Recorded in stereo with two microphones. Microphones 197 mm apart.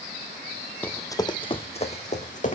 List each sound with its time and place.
0.8 s running footsteps: 10° left (ahead or behind), 0.7 m; by 2.6 s 45° left (ahead or behind), 1.4 m